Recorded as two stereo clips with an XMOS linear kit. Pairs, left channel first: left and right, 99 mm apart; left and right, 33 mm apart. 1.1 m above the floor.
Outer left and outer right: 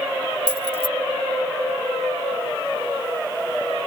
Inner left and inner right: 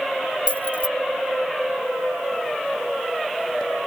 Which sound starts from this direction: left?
Keys jangling, at 0.5 s.